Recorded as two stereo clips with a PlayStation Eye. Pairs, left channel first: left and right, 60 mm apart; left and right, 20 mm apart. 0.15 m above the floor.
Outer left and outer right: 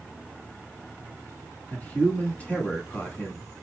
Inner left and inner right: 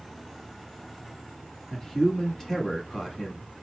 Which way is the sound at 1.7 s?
25° left (ahead or behind).